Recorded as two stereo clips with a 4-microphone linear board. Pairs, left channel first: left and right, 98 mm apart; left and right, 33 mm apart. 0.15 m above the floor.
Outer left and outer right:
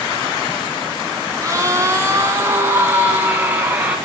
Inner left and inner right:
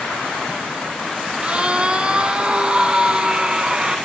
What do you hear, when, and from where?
1.4 s a scream: 30° right (ahead or behind), 1.4 m; by 4.0 s 15° right (ahead or behind), 3 m